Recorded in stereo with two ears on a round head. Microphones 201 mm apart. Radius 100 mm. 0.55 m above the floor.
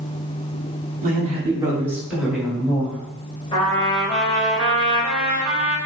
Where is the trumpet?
25° left (ahead or behind), 1.6 m.